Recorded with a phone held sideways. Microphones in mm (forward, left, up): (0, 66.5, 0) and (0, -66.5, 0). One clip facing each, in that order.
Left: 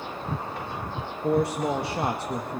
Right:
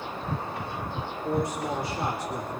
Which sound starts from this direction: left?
A man speaking, at 1.2 s.